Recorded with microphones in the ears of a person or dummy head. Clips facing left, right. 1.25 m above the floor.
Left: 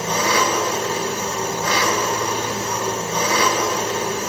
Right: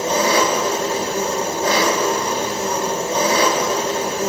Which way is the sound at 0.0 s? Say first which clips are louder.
Right 3 dB; 25° right (ahead or behind).